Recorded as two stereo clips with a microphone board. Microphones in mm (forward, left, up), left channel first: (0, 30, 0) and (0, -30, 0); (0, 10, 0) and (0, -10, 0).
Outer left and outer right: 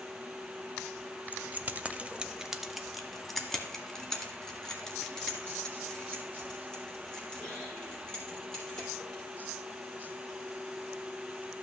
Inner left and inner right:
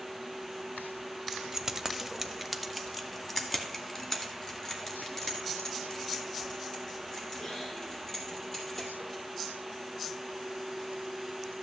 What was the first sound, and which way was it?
Keys jangling, 30° right (ahead or behind).